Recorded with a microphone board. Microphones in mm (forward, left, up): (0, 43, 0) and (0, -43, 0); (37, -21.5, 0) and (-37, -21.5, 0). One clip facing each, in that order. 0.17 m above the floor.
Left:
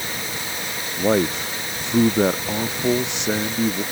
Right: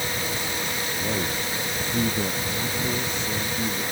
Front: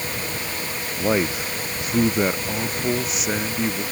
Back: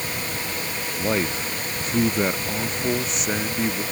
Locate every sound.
1.0 s a man speaking: 75° left; by 3.8 s 90° left